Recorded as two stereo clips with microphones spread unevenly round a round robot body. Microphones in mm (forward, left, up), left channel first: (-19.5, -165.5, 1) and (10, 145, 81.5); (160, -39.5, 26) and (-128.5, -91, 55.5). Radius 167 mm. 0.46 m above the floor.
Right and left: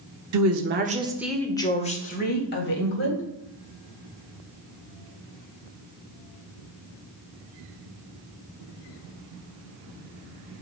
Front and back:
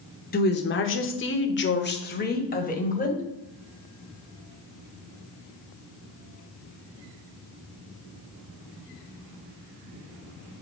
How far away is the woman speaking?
About 1.1 m.